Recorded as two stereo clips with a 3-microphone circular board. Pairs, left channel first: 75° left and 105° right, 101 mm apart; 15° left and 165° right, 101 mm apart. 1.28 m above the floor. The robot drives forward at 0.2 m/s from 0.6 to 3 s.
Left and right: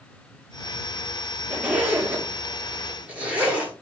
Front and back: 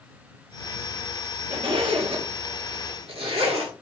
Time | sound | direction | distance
1.5 | a zipper | 175° left | 0.6 m